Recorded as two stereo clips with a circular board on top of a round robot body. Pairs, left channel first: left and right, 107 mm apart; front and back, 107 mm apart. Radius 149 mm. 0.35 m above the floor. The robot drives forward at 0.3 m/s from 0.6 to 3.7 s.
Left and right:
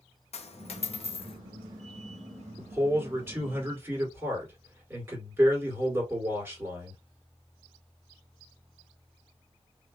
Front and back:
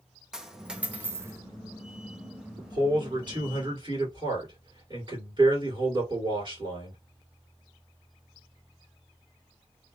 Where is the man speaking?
150° right, 1.9 m; by 7.0 s 155° right, 2 m.